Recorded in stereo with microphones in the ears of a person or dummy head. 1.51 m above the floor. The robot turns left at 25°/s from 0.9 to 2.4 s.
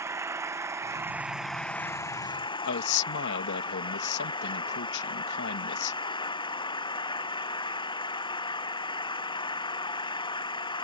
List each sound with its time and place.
0.0 s an engine running: 165° right; by 10.8 s 160° left
2.6 s a man speaking: 65° left (ahead or behind)